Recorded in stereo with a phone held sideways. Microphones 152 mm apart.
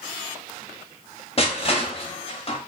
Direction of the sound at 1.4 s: 40° left (ahead or behind).